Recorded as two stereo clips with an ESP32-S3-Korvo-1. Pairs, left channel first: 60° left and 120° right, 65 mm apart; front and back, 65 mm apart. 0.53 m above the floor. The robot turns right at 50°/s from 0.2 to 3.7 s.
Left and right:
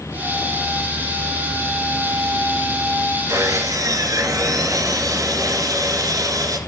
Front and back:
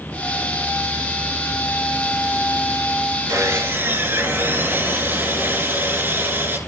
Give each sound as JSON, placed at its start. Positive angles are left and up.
{"t": 3.3, "sound": "sawing", "azimuth_deg": -150, "distance_m": 1.7}